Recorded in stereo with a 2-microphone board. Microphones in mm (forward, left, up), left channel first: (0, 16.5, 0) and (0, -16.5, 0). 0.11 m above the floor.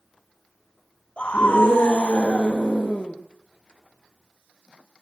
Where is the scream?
35° left (ahead or behind), 3.5 m.